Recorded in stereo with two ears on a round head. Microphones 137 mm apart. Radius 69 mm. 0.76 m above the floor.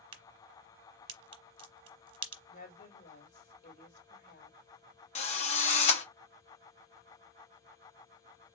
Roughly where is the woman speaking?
Left.